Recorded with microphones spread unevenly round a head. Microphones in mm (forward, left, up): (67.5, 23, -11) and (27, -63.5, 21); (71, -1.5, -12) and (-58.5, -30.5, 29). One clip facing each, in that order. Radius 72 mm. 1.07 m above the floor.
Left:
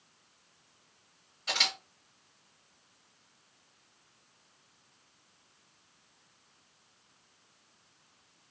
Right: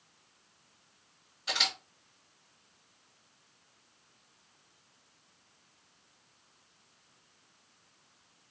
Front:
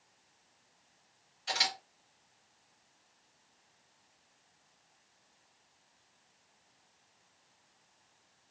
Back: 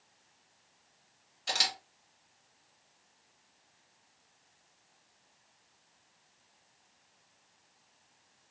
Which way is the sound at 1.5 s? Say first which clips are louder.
Even, even; 160° left.